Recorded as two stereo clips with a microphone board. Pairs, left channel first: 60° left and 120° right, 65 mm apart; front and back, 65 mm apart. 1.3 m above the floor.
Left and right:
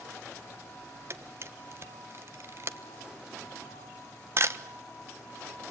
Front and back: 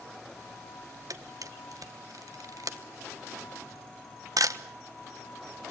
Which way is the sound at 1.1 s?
165° right.